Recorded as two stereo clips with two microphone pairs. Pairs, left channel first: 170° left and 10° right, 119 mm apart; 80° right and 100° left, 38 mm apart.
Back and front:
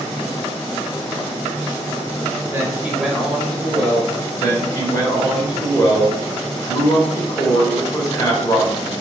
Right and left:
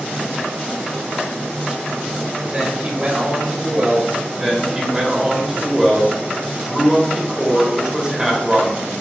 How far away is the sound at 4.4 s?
About 1.2 m.